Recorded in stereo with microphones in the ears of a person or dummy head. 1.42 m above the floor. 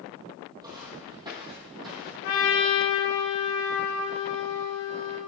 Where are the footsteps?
20° right (ahead or behind), 2.5 m; by 2.1 s 25° right (ahead or behind), 3.5 m.